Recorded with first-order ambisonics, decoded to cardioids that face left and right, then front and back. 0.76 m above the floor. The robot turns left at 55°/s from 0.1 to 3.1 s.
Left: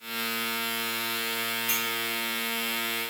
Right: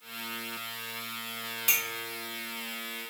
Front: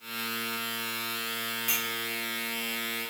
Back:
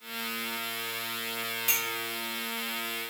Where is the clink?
105° right, 0.8 m; by 1.9 s 115° right, 0.8 m.